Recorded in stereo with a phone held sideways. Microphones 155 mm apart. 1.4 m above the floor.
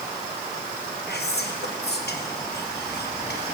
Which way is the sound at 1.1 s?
85° left.